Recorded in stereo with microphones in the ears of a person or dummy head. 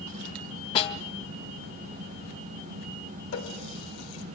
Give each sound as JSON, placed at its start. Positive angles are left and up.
{"t": 0.8, "sound": "a snare drum", "side_deg": 30, "distance_m": 1.5}
{"t": 3.3, "sound": "a running tap", "side_deg": 80, "distance_m": 3.0}